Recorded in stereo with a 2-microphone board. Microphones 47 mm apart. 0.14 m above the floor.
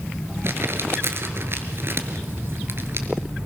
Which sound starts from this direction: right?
Crumpling, at 0.4 s.